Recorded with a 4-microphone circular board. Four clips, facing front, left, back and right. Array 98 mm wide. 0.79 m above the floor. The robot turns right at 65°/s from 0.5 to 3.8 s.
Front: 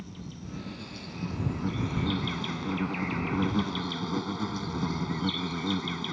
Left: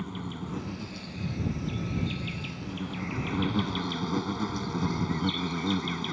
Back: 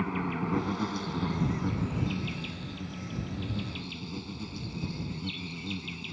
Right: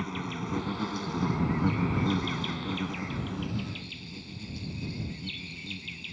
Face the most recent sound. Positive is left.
turn(degrees=50)